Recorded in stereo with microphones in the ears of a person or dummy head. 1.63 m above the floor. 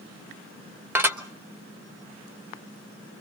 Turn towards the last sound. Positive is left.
turn(degrees=-10)  # may be behind; listen again after turning